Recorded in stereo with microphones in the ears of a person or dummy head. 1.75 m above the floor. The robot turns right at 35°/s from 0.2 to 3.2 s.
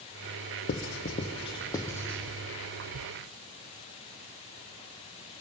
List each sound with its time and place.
0.7 s writing: 45° left (ahead or behind), 0.7 m; by 2.2 s 5° left (ahead or behind), 0.7 m